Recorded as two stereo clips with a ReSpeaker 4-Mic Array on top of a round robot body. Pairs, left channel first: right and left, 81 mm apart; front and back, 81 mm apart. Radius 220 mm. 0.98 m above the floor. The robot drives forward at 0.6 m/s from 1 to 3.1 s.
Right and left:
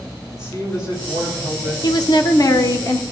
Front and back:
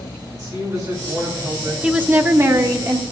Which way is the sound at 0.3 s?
130° right.